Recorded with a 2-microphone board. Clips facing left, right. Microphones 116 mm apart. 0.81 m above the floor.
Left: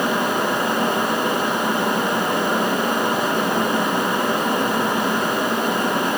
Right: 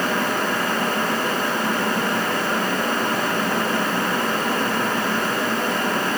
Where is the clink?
No clink in this recording.